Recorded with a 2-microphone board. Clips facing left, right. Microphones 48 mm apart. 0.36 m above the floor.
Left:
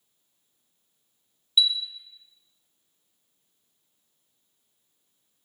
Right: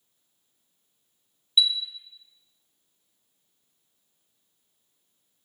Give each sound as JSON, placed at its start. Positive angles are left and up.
{"t": 1.6, "sound": "a chime", "side_deg": -5, "distance_m": 0.5}